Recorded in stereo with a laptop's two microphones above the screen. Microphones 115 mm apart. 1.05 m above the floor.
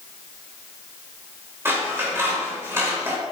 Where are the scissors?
20° right (ahead or behind), 2.5 m.